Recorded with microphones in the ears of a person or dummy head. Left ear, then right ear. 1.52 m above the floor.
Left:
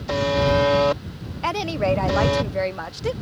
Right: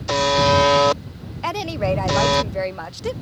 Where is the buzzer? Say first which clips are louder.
Right 4 dB; 40° right (ahead or behind).